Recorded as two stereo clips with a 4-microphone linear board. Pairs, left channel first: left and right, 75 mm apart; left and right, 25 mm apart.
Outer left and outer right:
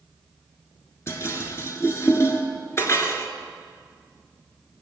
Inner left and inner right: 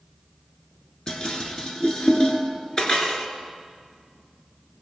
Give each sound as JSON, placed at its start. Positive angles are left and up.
{"t": 1.1, "sound": "dishes clattering", "side_deg": 35, "distance_m": 1.3}